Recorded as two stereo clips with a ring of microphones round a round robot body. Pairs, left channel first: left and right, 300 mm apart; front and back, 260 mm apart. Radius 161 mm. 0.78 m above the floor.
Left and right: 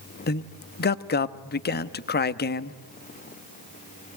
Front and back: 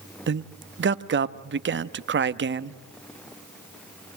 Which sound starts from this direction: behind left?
A man speaking, at 0.3 s.